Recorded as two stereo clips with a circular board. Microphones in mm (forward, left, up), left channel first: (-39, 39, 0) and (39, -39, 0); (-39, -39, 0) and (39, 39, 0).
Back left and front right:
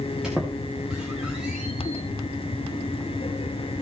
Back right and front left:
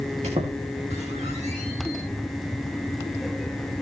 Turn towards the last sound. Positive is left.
turn(degrees=40)